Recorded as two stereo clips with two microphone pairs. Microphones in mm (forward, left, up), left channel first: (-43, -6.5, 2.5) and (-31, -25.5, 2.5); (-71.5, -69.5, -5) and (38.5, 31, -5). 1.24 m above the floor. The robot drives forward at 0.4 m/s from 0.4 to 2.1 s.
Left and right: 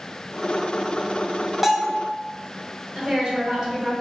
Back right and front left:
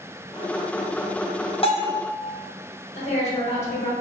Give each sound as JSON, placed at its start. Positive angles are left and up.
{"t": 1.6, "sound": "a bell", "azimuth_deg": -125, "distance_m": 0.6}
{"t": 3.0, "sound": "a woman speaking", "azimuth_deg": -95, "distance_m": 1.6}